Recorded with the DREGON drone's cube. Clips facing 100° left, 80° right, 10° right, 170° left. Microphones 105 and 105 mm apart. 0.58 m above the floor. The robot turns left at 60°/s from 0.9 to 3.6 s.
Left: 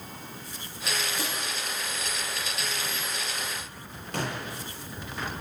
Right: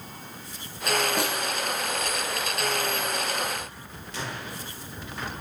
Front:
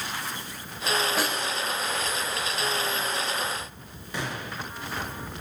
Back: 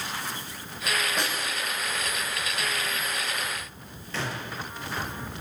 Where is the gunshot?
65° left, 5.5 m.